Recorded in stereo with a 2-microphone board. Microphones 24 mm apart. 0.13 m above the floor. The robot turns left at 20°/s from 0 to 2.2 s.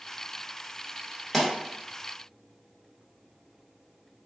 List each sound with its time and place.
1.3 s a pop: 10° left (ahead or behind), 1.1 m; by 1.5 s 5° left (ahead or behind), 1.1 m